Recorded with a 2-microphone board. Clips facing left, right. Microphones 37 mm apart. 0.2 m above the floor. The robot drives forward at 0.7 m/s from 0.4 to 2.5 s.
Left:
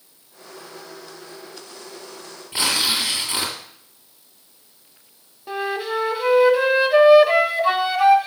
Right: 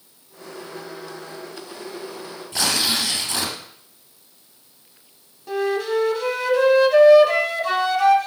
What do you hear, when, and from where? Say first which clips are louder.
2.5 s tearing paper: left 1 dB; 25° left (ahead or behind), 2.5 m
5.5 s a flute: right 3 dB; 25° left (ahead or behind), 0.8 m